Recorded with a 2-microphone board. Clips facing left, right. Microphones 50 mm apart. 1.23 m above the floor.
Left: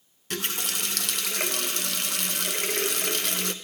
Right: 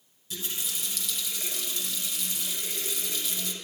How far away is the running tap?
About 0.7 m.